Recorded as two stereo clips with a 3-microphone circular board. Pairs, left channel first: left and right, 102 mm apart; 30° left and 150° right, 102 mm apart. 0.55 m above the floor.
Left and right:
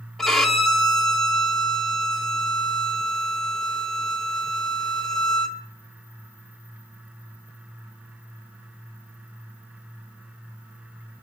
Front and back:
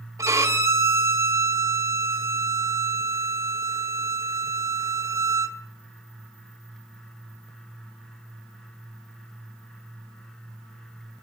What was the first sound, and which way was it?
A violin, 175° left.